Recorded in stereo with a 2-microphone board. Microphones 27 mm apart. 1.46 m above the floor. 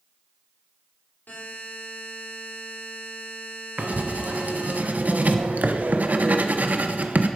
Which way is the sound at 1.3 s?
80° left.